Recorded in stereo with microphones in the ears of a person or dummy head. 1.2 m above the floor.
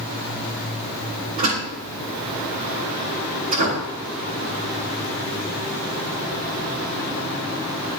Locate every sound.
1.4 s a door slam: 40° right (ahead or behind), 9.5 m